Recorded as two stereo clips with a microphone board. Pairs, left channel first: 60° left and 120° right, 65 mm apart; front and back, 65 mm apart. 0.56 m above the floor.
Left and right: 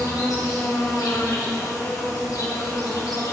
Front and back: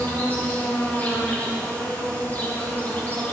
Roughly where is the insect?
Ahead left.